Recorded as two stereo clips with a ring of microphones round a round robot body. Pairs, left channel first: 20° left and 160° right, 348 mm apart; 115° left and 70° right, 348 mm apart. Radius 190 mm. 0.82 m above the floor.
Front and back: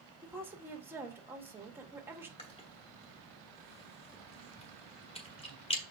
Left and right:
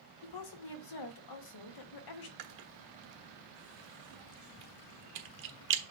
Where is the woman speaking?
120° left, 1.2 m.